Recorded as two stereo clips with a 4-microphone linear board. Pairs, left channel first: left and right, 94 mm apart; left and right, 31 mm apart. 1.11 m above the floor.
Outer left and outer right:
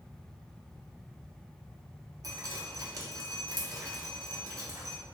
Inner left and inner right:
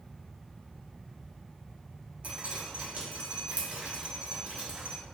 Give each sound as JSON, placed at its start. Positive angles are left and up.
{"t": 2.2, "sound": "dripping", "side_deg": -40, "distance_m": 0.8}